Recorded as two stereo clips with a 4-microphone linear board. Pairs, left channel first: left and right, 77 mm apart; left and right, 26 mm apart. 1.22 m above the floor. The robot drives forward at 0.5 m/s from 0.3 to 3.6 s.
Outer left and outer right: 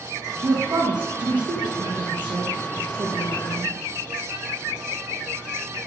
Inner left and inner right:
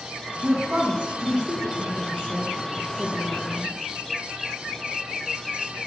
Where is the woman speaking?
60° right (ahead or behind), 1.1 m; by 3.8 s 45° right (ahead or behind), 1.5 m.